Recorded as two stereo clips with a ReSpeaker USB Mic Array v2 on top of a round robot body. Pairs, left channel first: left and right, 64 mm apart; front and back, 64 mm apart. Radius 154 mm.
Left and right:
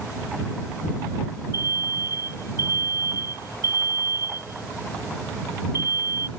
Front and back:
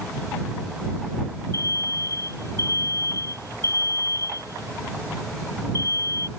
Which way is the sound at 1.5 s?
40° right.